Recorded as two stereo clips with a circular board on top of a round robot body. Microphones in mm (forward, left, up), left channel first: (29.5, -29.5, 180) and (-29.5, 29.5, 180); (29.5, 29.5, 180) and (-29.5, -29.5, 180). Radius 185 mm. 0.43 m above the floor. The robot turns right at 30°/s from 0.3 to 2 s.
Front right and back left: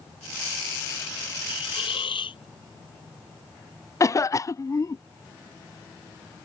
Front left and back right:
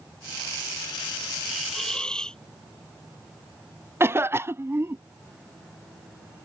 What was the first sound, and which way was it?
A hiss, 50° right.